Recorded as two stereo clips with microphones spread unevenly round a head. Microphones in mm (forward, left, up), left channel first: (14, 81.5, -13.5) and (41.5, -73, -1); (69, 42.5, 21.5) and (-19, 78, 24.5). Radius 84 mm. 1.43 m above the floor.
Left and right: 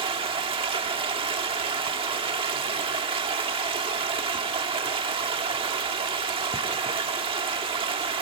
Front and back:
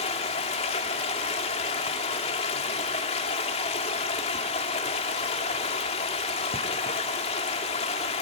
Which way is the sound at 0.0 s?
25° right.